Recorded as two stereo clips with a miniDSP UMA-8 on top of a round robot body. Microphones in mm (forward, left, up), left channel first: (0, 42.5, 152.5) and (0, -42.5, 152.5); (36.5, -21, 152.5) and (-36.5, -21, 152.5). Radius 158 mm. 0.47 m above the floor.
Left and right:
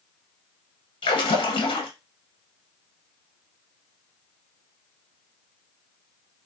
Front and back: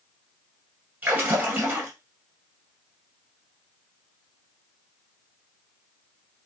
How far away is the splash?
About 1.5 m.